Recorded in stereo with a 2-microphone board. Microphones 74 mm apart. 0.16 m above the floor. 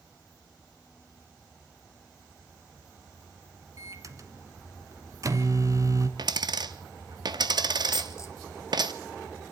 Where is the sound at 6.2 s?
65° right (ahead or behind), 0.8 m.